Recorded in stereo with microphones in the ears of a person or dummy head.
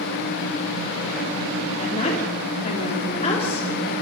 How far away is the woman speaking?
About 3.5 m.